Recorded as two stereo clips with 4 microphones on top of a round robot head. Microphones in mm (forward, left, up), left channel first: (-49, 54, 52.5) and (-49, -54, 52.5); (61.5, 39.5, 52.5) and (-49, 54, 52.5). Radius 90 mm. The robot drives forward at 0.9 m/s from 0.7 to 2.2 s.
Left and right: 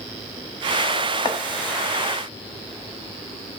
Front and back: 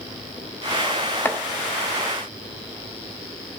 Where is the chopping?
45° left, 0.8 m; by 1.4 s 65° left, 0.8 m.